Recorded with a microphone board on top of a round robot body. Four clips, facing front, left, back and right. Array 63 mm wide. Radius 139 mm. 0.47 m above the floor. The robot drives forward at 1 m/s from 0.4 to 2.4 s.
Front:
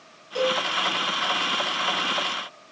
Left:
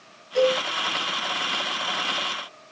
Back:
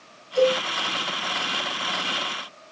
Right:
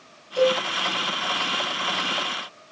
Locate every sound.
0.3 s a cowbell: 75° left, 7 m